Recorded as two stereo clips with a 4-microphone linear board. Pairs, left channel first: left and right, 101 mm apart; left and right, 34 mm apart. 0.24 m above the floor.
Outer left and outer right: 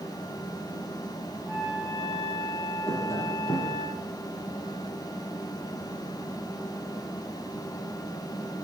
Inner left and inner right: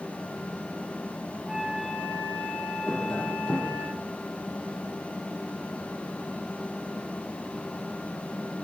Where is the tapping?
25° left (ahead or behind), 9 m.